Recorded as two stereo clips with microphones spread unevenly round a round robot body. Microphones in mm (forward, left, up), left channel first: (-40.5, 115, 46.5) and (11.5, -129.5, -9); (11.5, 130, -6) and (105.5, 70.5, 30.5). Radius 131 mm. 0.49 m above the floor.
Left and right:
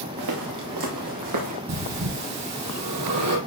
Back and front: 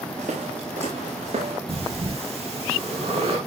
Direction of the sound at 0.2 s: 80° right.